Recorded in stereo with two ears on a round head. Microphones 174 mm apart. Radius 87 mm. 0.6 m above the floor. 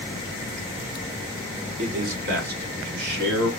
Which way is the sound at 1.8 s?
40° right (ahead or behind).